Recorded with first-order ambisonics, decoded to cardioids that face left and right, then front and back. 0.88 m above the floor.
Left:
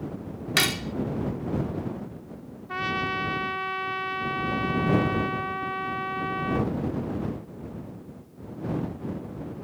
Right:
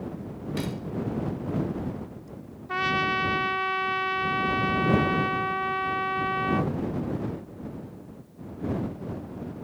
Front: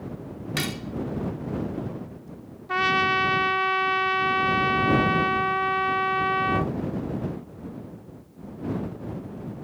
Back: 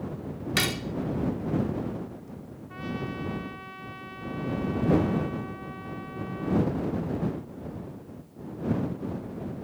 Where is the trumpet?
15° right.